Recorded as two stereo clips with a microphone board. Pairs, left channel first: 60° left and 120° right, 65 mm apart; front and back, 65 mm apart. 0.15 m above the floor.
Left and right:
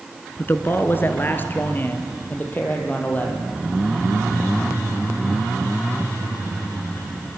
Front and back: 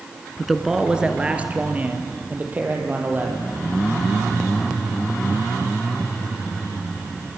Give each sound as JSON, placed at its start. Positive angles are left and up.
{"t": 0.4, "sound": "a man speaking", "azimuth_deg": 90, "distance_m": 1.4}